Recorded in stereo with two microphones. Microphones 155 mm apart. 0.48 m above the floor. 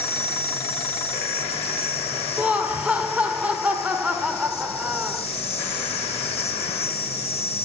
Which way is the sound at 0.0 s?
45° left (ahead or behind).